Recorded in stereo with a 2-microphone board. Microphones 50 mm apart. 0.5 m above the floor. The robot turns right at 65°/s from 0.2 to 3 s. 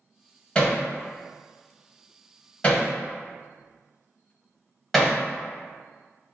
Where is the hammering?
20° left (ahead or behind), 0.9 m; by 6.3 s centre (ahead or behind), 0.9 m.